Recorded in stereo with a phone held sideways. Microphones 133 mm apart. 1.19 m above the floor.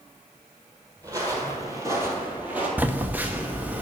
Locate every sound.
1.0 s footsteps: 30° right (ahead or behind), 1.4 m; by 2.7 s 10° right (ahead or behind), 1.3 m
2.8 s a phone buzzing: 10° right (ahead or behind), 0.6 m